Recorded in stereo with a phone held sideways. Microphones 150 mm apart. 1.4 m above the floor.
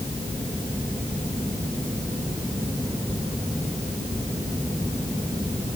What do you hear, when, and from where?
Only background noise.